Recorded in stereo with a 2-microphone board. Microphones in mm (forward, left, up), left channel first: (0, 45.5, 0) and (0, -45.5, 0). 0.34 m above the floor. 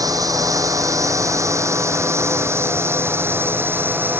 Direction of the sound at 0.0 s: 40° right (ahead or behind).